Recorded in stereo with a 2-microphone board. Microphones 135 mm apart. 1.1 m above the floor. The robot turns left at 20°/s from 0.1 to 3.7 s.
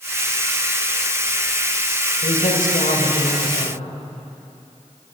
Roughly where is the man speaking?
Left.